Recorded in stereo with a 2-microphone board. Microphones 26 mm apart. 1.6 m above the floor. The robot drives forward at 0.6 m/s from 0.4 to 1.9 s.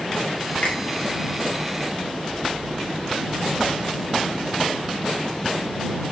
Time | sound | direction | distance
0.6 | a finger snap | 55° left (ahead or behind) | 1.3 m